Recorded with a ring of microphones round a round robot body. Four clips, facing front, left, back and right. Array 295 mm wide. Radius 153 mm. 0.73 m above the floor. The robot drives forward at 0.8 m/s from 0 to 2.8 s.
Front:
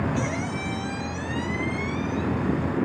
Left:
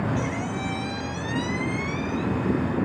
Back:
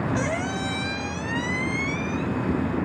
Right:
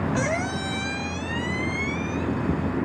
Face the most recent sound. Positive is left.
turn(degrees=-165)